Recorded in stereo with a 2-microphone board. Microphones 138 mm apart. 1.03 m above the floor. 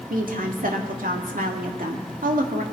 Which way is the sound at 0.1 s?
85° right.